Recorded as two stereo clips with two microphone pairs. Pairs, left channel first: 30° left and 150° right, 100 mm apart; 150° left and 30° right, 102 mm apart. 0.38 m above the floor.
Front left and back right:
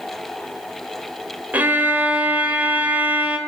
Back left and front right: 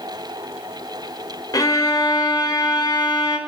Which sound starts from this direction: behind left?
A violin, at 1.5 s.